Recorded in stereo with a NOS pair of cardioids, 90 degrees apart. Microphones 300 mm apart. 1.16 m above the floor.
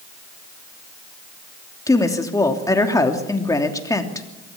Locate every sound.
1.9 s a woman speaking: 10° left, 3 m